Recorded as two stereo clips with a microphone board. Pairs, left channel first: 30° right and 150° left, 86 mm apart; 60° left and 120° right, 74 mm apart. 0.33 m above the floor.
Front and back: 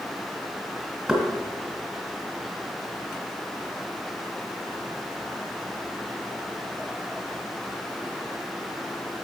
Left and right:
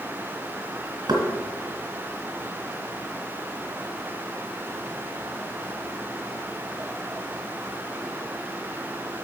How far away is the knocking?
About 2 m.